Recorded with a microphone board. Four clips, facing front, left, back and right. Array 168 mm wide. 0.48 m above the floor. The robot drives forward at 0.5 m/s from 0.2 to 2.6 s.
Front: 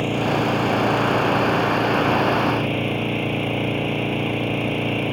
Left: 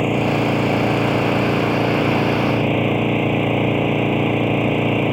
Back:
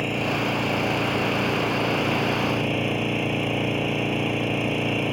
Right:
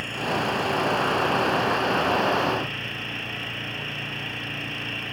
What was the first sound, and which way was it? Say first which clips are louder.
An engine running: left 9 dB, front 4 dB; 80° left.